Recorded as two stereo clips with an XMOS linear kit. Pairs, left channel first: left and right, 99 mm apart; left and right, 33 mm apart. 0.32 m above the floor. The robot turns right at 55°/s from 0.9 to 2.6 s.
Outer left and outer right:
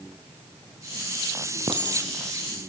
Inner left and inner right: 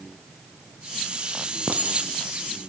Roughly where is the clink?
Right.